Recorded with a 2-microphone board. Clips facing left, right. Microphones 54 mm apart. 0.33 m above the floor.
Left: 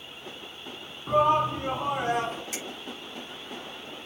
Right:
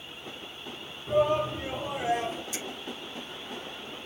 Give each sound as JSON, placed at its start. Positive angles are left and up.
{"t": 1.1, "sound": "a shout", "side_deg": 65, "distance_m": 4.5}
{"t": 2.5, "sound": "a finger snap", "side_deg": 85, "distance_m": 8.0}